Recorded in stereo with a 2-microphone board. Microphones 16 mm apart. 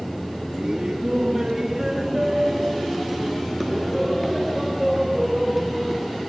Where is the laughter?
40° right (ahead or behind), 4 m; by 6.2 s centre (ahead or behind), 5.5 m.